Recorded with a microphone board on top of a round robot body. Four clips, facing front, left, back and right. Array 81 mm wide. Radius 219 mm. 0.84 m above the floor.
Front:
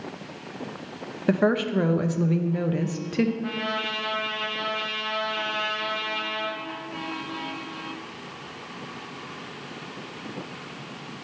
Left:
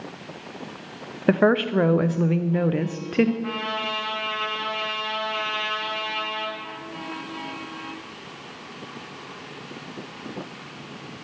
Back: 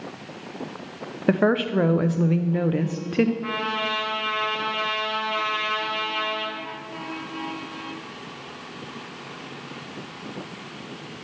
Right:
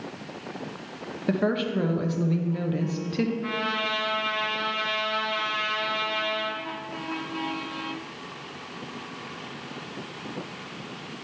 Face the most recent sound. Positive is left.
turn(degrees=-155)